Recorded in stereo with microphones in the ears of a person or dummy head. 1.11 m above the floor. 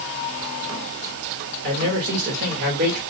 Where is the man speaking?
60° right (ahead or behind), 1.9 m.